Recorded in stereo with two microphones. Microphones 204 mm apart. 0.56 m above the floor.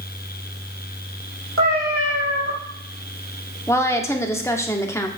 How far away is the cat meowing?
About 4.5 m.